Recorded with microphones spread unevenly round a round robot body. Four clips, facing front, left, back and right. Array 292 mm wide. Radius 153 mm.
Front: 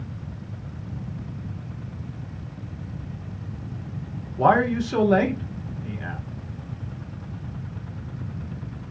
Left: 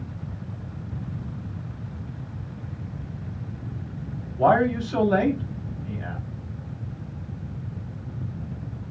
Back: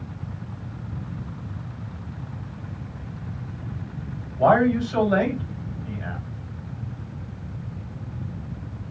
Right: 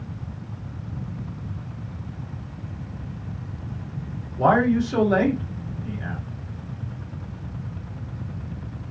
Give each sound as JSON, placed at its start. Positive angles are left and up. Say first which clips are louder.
{"t": 4.4, "sound": "a man speaking", "louder": "right 1 dB, back 1 dB", "azimuth_deg": -15, "distance_m": 1.4}